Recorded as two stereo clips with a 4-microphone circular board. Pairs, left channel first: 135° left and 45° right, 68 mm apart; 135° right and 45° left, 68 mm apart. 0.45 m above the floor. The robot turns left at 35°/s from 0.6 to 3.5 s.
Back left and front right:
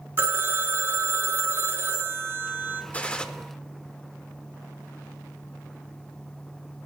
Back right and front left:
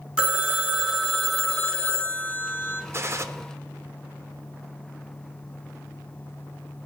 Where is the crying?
I don't hear crying.